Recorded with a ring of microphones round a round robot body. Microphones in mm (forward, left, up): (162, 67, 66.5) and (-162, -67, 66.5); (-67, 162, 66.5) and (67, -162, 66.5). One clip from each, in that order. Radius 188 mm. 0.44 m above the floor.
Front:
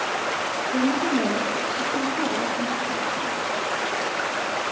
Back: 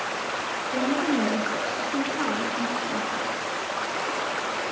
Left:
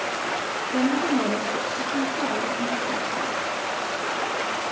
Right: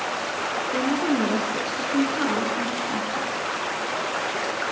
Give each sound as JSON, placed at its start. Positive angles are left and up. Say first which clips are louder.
{"t": 0.7, "sound": "a woman speaking", "louder": "front 1 dB, left 2 dB", "azimuth_deg": -115, "distance_m": 6.5}